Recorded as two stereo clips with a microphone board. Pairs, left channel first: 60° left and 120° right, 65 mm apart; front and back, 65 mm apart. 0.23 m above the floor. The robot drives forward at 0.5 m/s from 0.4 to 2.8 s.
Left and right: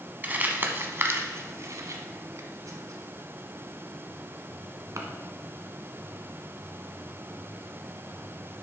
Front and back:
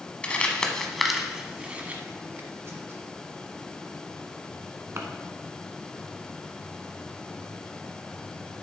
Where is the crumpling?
65° right, 1.1 m; by 5.0 s 140° right, 1.3 m.